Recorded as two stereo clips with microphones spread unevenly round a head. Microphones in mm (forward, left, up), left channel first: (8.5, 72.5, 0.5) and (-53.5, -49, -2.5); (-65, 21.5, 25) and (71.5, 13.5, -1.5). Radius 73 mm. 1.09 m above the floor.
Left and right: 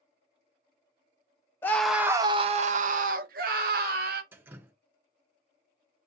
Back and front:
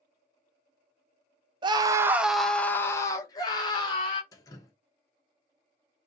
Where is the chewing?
No chewing in this recording.